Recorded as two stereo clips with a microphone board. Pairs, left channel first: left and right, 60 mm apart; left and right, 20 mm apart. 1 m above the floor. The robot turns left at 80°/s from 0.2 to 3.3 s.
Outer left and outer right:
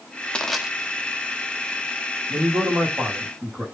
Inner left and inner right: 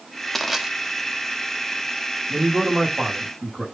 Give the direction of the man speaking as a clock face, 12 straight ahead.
3 o'clock.